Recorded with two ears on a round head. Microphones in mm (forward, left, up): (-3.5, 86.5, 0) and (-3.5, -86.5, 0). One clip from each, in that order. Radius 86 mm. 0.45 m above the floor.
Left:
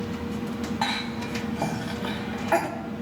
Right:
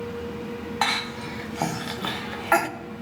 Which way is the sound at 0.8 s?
45° right (ahead or behind).